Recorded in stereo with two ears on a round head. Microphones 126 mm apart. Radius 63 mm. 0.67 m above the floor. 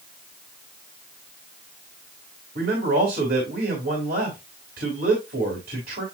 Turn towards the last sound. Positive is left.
turn(degrees=-75)  # may be behind; listen again after turning